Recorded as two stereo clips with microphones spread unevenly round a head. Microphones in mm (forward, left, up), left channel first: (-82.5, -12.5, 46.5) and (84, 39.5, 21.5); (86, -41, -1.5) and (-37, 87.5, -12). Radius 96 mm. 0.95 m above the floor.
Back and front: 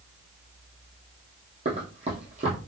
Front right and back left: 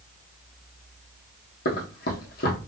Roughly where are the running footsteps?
Ahead right.